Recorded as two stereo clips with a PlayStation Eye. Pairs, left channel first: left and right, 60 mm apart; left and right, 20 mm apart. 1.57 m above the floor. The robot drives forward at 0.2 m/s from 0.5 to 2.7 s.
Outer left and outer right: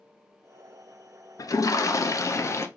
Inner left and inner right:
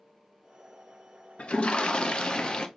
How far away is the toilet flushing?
About 0.5 m.